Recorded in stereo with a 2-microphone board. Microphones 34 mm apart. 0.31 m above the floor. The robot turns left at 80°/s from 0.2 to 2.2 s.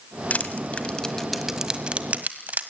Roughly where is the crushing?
Left.